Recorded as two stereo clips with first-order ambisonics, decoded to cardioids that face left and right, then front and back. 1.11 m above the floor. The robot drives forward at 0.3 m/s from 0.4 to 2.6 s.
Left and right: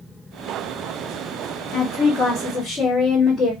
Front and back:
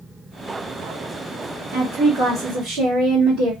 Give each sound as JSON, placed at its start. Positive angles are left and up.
{"t": 1.7, "sound": "a woman speaking", "azimuth_deg": 140, "distance_m": 1.1}